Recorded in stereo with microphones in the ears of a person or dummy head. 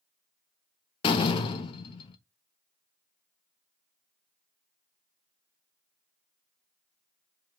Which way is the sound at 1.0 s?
25° left (ahead or behind).